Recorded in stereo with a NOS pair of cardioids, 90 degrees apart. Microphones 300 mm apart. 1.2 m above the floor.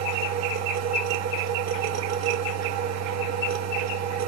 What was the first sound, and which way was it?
A machine running, 60° right.